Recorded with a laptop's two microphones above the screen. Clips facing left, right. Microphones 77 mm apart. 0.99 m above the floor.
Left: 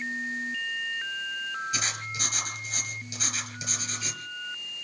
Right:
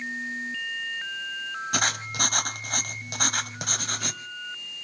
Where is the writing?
60° right (ahead or behind), 1.5 m.